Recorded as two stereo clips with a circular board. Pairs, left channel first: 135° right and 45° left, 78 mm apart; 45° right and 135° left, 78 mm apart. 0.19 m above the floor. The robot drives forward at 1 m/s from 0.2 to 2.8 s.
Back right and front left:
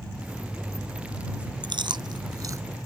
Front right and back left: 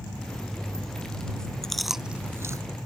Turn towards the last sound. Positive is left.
turn(degrees=110)